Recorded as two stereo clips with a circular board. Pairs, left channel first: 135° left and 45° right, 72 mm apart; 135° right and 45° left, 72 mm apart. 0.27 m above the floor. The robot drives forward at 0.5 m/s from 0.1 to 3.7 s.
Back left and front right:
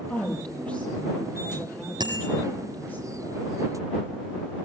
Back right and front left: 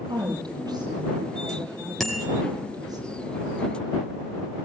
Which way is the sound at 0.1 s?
60° left.